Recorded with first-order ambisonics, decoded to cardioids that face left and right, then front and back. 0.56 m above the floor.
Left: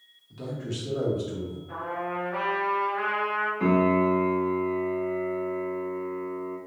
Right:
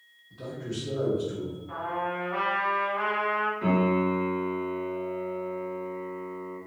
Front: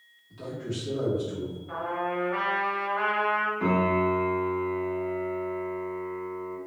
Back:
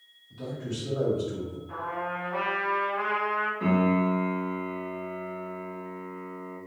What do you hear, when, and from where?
0.3 s a man speaking: 75° left, 1.1 m; by 1.6 s 120° left, 1.6 m
1.7 s a trumpet: 15° right, 1.1 m
3.6 s a piano: 80° left, 1.3 m